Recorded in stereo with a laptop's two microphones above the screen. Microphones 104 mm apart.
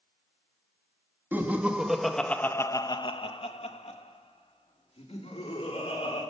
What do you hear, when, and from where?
1.3 s laughter: 20° right (ahead or behind), 1.6 m; by 6.2 s 70° left (ahead or behind), 3 m